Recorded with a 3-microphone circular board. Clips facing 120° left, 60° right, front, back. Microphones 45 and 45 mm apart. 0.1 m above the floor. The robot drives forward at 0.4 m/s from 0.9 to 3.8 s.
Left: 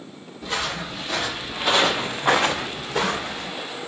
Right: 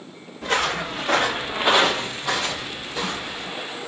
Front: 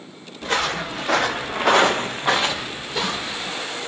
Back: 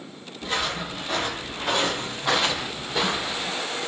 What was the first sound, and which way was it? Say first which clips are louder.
Footsteps: right 5 dB, front 5 dB; 35° right.